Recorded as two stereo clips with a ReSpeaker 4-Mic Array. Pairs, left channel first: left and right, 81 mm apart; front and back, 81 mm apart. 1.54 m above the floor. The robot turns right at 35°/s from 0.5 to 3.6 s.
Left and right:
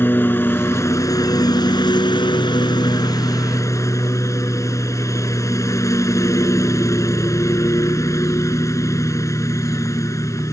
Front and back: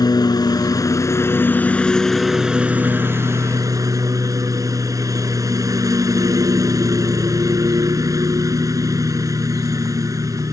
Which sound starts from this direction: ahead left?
A lawn mower, at 0.0 s.